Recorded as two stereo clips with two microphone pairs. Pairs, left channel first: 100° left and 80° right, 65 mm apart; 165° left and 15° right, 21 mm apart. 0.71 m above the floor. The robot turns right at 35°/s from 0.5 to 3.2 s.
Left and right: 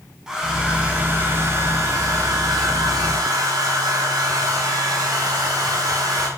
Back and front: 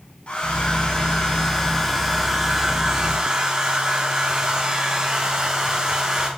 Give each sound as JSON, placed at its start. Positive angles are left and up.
{"t": 0.3, "sound": "a hair dryer", "azimuth_deg": -165, "distance_m": 4.0}